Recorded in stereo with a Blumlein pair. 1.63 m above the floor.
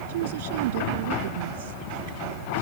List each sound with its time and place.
0.1 s a woman speaking: 55° right; by 2.6 s 60° right